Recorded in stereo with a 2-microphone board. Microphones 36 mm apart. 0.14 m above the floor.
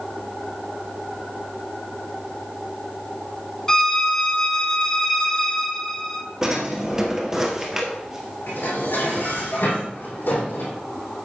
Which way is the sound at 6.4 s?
15° right (ahead or behind).